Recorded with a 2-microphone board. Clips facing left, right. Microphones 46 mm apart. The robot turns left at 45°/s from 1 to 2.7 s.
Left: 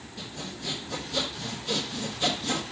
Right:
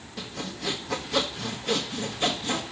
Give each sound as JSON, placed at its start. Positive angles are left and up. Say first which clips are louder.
{"t": 0.2, "sound": "sawing", "louder": "right 4 dB", "azimuth_deg": -90, "distance_m": 1.5}